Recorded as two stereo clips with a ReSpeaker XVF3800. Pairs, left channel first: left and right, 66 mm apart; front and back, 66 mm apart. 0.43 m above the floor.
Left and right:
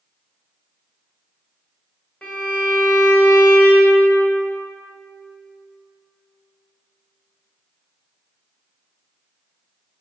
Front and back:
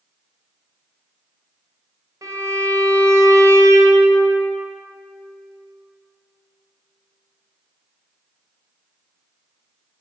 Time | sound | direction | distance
2.2 | a violin | 160° left | 1.5 m